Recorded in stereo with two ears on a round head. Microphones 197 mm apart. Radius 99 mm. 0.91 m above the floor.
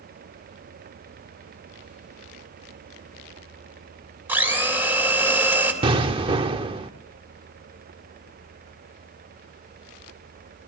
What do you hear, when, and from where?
4.3 s a blender: 10° right (ahead or behind), 3.5 m
5.8 s an explosion: 25° right (ahead or behind), 1.1 m